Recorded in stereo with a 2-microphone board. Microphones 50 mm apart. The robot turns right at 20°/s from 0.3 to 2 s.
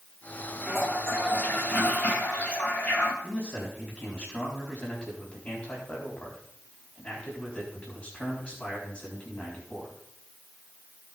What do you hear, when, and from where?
0.7 s a toilet flushing: centre (ahead or behind), 4 m; by 3.1 s 25° left (ahead or behind), 4 m
3.2 s a man speaking: 20° left (ahead or behind), 4.5 m